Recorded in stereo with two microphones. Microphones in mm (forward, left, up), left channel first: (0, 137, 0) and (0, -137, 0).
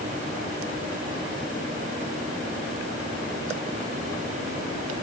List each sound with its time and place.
Only background noise.